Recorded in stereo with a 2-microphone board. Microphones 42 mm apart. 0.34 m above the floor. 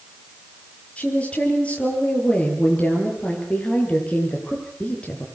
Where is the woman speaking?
30° left (ahead or behind), 9 m.